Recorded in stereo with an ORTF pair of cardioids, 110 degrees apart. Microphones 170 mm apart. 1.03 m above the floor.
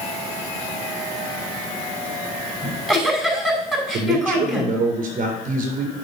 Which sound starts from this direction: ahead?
A giggle, at 2.6 s.